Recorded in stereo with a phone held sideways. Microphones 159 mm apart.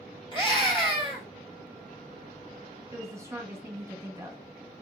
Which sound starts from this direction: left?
A scream, at 0.3 s.